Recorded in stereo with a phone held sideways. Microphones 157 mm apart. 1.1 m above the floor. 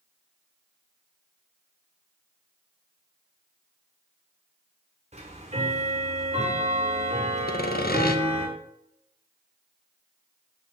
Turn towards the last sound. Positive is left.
turn(degrees=75)  # may be behind; listen again after turning